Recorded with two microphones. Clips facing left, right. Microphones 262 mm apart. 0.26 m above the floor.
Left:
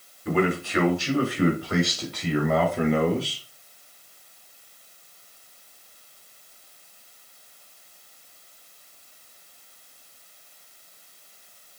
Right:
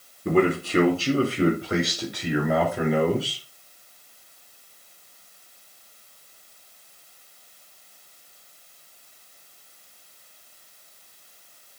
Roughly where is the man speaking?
Right.